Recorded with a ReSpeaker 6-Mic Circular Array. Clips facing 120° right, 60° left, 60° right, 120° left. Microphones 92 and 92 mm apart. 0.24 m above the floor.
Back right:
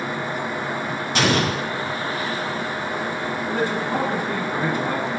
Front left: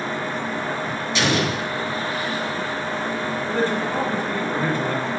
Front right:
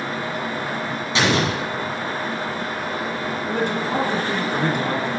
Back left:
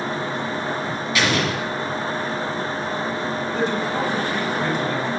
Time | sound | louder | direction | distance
1.1 | an explosion | back right 2 dB, front right 2 dB | 120° right | 1.7 m
3.5 | a man speaking | front left 1 dB, front right 1 dB | 50° right | 2 m